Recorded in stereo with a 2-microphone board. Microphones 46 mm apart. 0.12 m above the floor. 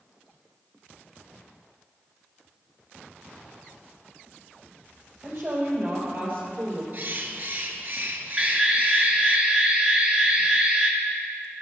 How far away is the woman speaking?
About 4 m.